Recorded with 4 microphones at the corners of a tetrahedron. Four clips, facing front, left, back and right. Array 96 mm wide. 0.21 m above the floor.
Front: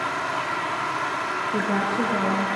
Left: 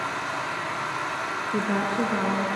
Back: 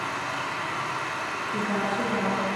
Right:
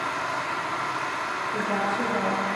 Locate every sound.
0.0 s running water: 5° right, 8 m
1.5 s a woman speaking: 40° left, 2.5 m